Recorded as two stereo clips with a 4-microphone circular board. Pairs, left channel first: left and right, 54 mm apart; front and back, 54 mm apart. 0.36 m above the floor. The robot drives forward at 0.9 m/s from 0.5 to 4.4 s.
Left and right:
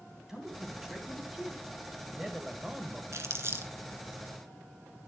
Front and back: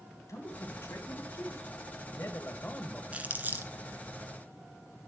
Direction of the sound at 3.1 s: 115° right.